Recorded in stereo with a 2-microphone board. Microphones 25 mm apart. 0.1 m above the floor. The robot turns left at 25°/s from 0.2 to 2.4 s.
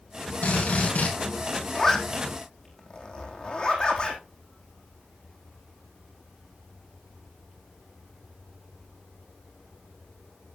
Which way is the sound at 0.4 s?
70° left (ahead or behind).